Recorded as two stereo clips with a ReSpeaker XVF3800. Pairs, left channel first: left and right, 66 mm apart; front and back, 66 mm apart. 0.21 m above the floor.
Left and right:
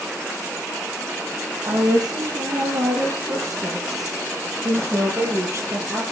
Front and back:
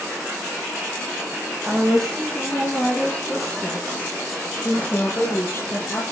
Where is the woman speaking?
85° right, 6 m; by 6.0 s 45° right, 5 m.